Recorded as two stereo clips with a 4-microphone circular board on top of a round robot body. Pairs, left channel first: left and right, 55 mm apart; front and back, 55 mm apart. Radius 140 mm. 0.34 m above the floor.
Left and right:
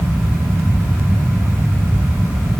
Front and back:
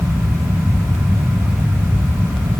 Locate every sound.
Only background noise.